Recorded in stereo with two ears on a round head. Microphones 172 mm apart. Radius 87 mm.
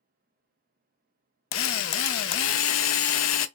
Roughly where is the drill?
Left.